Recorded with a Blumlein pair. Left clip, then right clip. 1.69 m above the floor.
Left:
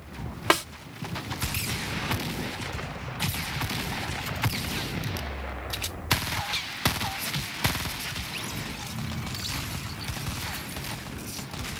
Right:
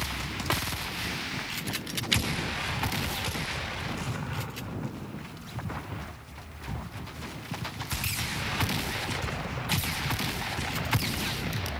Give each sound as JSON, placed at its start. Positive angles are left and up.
{"t": 0.5, "sound": "a snare drum", "azimuth_deg": 60}